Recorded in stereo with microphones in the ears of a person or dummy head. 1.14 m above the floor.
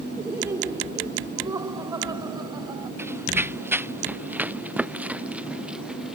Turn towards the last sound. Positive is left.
turn(degrees=0)  # may be behind; listen again after turning